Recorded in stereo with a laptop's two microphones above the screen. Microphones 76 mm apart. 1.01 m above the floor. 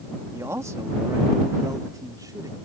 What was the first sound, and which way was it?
A man speaking, 40° right (ahead or behind).